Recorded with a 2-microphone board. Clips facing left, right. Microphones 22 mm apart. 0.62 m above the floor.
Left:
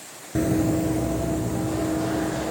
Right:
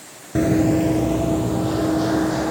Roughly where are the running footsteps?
Right.